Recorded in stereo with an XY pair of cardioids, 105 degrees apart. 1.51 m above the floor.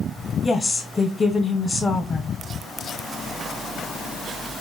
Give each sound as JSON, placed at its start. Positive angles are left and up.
{"t": 0.4, "sound": "a woman speaking", "azimuth_deg": 30, "distance_m": 0.7}